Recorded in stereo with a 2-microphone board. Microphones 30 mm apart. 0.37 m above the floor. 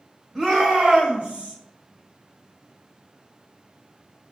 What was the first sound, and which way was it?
A shout, centre (ahead or behind).